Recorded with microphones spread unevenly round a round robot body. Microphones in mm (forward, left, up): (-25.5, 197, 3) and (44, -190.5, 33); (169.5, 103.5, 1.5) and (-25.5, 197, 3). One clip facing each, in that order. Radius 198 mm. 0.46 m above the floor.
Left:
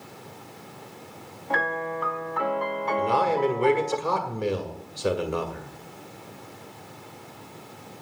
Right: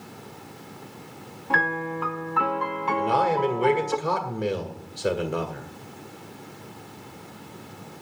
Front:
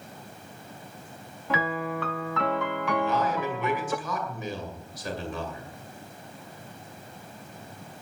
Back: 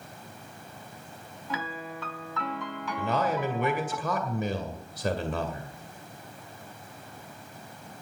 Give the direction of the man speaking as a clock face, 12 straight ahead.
6 o'clock.